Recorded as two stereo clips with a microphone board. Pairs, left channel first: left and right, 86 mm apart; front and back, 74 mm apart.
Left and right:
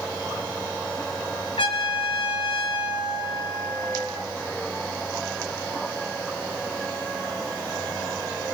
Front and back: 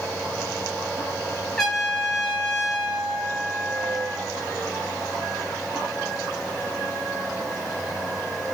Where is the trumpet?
85° left, 7.5 m.